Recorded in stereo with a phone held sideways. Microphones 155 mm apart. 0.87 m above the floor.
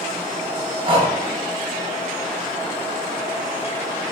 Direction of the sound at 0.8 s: 35° right (ahead or behind).